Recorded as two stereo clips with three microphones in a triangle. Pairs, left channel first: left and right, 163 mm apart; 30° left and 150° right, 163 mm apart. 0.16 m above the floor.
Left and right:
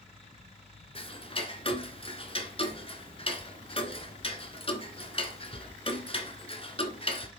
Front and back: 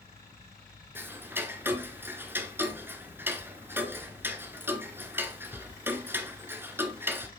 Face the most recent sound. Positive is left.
turn(degrees=135)